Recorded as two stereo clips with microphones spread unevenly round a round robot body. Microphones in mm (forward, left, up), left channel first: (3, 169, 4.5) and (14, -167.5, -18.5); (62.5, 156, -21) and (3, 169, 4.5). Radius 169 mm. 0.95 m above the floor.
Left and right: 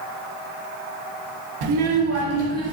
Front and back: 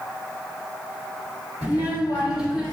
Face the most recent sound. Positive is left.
turn(degrees=-20)